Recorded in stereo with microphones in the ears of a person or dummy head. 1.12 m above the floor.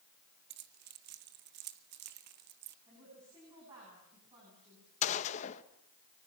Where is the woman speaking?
25° right (ahead or behind), 10 m.